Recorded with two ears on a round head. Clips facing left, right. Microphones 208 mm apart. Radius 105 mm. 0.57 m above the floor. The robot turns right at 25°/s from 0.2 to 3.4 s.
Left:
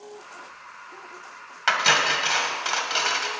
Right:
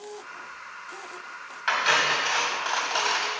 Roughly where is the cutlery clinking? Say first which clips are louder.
Left 2 dB; left.